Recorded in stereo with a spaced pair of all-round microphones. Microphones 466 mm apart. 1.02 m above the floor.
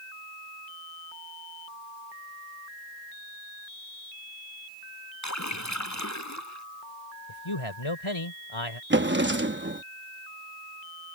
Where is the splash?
35° left (ahead or behind).